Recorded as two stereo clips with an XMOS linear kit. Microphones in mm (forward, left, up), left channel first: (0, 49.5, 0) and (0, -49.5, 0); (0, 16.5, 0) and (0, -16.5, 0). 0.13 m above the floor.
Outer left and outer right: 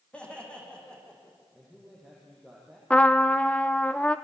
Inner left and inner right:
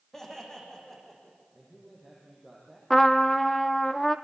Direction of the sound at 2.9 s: 10° left (ahead or behind).